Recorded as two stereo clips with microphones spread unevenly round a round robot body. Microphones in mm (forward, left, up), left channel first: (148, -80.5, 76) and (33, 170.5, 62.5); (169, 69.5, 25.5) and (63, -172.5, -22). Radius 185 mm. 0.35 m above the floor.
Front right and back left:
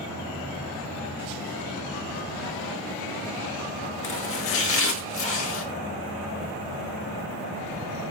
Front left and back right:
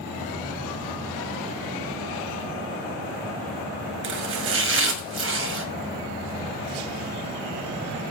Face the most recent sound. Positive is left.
turn(degrees=-100)